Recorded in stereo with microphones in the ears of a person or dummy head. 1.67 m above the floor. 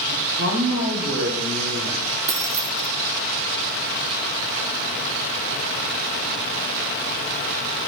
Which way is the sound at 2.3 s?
10° right (ahead or behind).